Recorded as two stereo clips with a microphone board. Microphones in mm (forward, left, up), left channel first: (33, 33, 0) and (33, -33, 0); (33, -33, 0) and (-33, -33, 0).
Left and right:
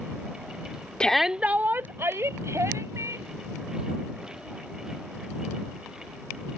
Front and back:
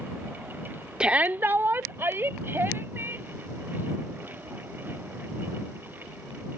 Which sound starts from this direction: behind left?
A shout, at 1.0 s.